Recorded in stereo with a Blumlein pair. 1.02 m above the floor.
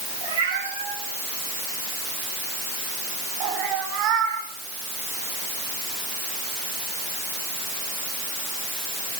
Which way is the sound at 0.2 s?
65° right.